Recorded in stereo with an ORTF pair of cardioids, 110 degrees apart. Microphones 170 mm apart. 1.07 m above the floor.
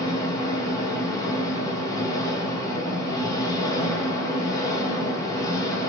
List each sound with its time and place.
0.0 s an engine running: 20° left, 1.3 m